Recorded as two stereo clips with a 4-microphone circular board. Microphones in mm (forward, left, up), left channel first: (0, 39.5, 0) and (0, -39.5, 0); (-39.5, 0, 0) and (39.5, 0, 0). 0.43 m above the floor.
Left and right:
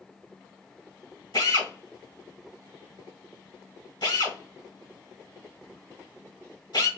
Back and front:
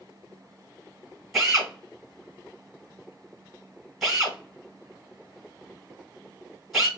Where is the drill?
85° left, 2.5 m.